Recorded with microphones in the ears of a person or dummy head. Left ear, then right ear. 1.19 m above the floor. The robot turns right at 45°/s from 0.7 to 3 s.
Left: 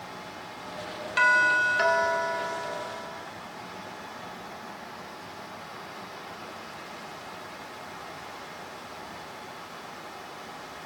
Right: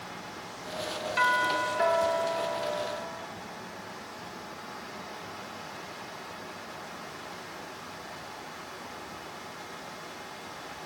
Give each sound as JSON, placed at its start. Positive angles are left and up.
{"t": 1.2, "sound": "a doorbell", "azimuth_deg": 15, "distance_m": 2.5}